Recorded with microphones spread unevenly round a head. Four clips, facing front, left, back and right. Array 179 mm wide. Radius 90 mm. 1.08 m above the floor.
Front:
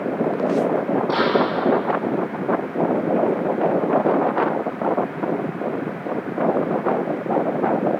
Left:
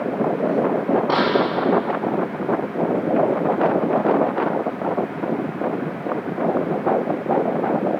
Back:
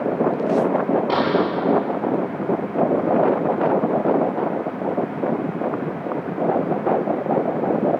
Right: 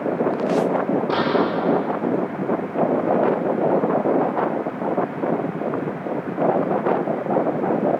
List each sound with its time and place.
1.1 s a door slam: 130° left, 8.5 m